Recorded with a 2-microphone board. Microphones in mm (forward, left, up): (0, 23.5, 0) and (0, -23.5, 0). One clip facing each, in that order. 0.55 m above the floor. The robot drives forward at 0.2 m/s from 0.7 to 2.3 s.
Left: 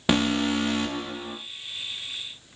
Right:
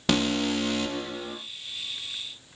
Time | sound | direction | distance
0.1 | an alarm | 20° left (ahead or behind) | 0.6 m